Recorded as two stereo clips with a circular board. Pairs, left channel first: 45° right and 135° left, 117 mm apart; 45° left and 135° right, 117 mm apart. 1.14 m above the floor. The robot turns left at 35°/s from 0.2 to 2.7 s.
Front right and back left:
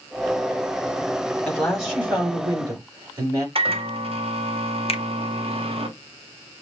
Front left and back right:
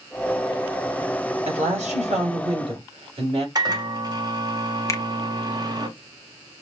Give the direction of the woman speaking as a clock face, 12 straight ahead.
4 o'clock.